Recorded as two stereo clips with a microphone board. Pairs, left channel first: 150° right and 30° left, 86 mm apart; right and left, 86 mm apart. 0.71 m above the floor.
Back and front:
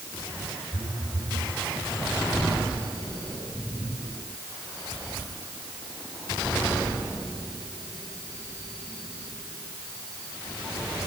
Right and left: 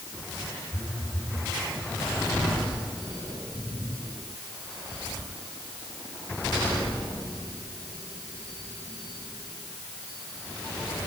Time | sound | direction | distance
0.7 | a phone buzzing | straight ahead | 9 m